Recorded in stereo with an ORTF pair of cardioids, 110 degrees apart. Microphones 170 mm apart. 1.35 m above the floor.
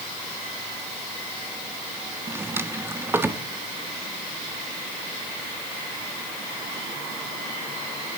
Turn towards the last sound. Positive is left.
turn(degrees=-15)